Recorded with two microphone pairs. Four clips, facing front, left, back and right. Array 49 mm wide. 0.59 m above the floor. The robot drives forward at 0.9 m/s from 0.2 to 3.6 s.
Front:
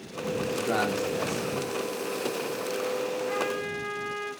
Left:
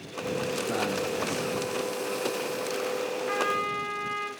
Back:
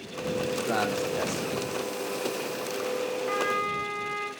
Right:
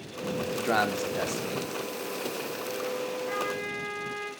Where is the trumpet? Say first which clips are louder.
Left 4 dB, back 2 dB; 145° left, 3 m.